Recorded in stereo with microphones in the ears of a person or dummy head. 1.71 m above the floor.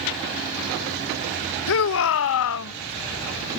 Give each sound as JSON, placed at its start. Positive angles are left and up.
{"t": 1.7, "sound": "a shout", "side_deg": 75}